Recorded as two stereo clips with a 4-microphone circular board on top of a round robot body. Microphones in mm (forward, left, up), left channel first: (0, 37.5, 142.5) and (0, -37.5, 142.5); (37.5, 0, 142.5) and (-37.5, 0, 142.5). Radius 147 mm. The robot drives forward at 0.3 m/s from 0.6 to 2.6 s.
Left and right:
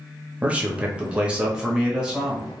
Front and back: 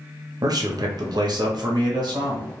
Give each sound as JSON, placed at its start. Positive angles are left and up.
{"t": 0.4, "sound": "a man speaking", "azimuth_deg": -160, "distance_m": 0.8}